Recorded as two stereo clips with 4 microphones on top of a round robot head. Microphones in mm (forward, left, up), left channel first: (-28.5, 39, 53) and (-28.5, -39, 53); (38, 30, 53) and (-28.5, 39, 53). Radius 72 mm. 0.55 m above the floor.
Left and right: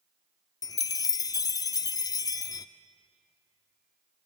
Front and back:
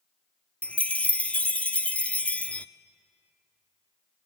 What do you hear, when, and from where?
0.6 s a chime: 60° left, 0.5 m